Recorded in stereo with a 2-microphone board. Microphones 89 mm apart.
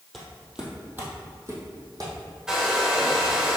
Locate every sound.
0.1 s footsteps: 5° left (ahead or behind), 1.8 m; by 3.3 s 60° right (ahead or behind), 3.5 m
2.5 s a hair dryer: 5° right (ahead or behind), 1.3 m